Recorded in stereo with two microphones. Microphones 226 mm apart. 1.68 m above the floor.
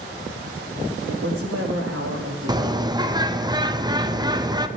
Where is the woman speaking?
65° right (ahead or behind), 2 m; by 3.5 s 80° right, 3.5 m.